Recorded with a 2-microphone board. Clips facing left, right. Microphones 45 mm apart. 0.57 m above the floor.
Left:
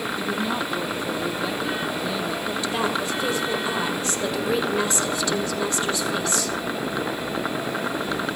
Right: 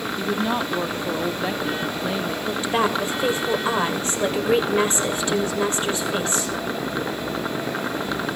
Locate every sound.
0.2 s a woman speaking: 25° right (ahead or behind), 0.7 m
2.5 s a woman speaking: 35° right (ahead or behind), 2 m